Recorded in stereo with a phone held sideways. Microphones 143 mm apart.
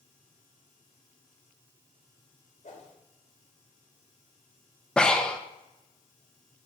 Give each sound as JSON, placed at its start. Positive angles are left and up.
{"t": 2.6, "sound": "a whoosh", "side_deg": 60, "distance_m": 2.5}
{"t": 5.0, "sound": "breathing", "side_deg": 5, "distance_m": 1.0}